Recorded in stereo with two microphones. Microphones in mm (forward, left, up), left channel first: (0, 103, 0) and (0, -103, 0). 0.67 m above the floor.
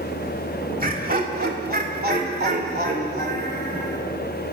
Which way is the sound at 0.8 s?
45° right (ahead or behind).